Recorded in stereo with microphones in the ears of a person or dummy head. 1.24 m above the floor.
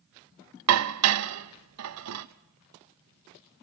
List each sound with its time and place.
0.7 s dishes clattering: 75° right (ahead or behind), 0.9 m